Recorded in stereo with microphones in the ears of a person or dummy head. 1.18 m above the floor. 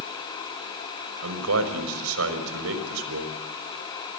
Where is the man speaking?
85° right, 6 m.